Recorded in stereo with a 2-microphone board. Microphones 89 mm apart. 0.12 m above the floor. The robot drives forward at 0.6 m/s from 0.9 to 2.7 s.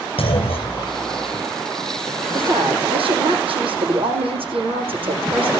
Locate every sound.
0.2 s a clunk: 75° left (ahead or behind), 2.5 m
2.3 s a woman speaking: 70° right (ahead or behind), 6 m